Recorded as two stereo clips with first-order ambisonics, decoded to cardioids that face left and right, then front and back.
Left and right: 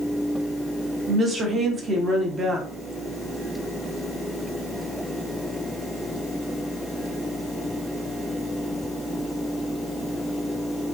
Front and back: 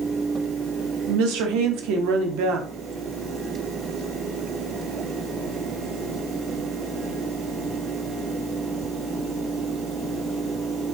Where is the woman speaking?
160° right, 0.8 m.